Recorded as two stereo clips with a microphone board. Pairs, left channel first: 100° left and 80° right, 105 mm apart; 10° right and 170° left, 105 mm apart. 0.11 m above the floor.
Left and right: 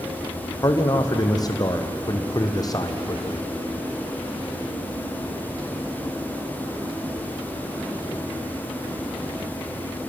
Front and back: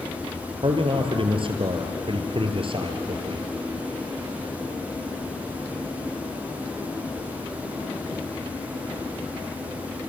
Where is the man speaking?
150° left, 2.5 m.